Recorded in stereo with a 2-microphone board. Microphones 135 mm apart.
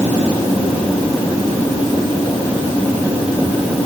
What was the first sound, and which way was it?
Only background noise.